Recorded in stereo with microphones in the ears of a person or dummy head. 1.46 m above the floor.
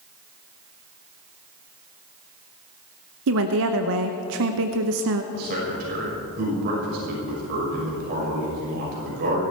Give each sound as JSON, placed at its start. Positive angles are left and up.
{"t": 3.3, "sound": "a woman speaking", "side_deg": -60, "distance_m": 0.9}
{"t": 5.3, "sound": "a man speaking", "side_deg": -50, "distance_m": 6.5}